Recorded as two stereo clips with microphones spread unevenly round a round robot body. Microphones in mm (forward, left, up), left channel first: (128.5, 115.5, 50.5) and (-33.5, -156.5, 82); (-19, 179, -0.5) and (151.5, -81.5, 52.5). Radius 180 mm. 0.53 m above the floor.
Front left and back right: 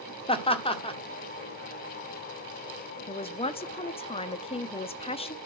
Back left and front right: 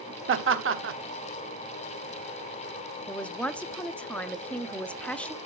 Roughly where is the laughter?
Ahead.